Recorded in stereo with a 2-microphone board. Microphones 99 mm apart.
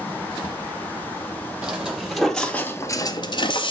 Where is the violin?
I don't hear a violin.